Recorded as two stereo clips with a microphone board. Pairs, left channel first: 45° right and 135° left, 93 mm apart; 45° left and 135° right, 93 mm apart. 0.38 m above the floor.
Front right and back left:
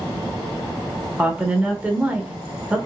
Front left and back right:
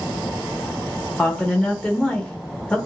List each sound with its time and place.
1.2 s a woman speaking: 105° left, 0.8 m